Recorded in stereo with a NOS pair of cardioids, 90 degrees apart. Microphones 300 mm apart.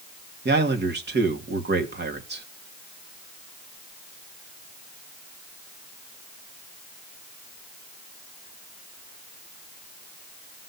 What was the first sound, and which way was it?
A man speaking, 35° right.